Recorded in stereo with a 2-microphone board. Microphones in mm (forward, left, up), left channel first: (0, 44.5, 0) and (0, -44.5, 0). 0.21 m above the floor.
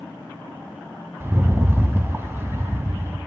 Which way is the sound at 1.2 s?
30° right (ahead or behind).